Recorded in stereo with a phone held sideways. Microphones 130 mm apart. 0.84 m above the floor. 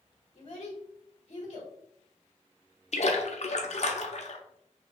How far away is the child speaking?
About 1.2 m.